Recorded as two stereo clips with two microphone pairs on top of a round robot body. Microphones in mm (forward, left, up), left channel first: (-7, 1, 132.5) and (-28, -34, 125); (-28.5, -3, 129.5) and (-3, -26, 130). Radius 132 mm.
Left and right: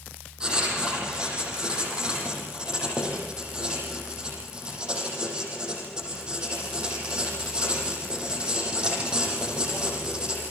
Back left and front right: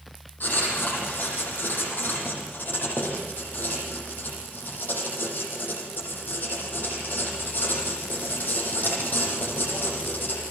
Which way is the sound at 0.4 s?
170° left.